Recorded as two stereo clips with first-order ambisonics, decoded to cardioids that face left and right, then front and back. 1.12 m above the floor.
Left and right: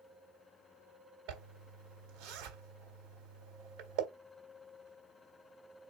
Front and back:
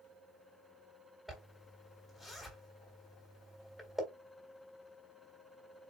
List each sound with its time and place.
1.3 s a zipper: 90° right, 1.9 m